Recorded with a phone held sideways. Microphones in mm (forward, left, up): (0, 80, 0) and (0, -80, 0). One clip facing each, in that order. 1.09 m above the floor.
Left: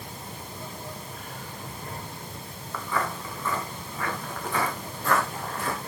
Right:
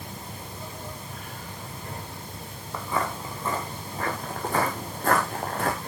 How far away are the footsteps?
About 4 m.